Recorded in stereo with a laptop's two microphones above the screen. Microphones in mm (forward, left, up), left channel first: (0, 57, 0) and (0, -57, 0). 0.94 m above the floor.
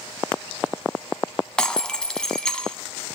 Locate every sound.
1.6 s breaking glass: 5° left (ahead or behind), 0.8 m